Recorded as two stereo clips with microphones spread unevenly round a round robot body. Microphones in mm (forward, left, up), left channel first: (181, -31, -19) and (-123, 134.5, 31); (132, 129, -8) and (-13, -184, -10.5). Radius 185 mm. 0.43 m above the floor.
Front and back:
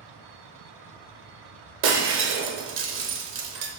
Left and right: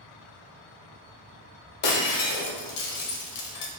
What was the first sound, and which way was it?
Breaking glass, 95° left.